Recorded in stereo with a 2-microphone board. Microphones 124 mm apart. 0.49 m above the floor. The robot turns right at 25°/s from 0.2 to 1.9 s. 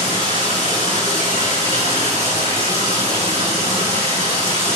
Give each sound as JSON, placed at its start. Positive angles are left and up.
{"t": 0.0, "sound": "running water", "azimuth_deg": 55, "distance_m": 2.0}